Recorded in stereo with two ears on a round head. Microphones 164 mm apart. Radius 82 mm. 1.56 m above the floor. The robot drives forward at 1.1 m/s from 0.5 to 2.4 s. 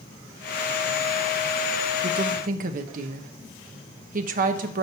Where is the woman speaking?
60° right (ahead or behind), 1.0 m; by 4.8 s 50° right (ahead or behind), 1.2 m.